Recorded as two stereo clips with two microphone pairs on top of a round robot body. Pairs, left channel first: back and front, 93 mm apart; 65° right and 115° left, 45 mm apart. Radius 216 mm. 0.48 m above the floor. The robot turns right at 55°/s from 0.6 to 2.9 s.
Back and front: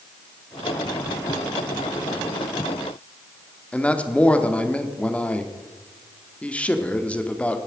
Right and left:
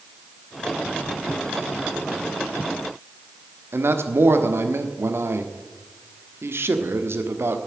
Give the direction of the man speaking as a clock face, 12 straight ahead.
9 o'clock.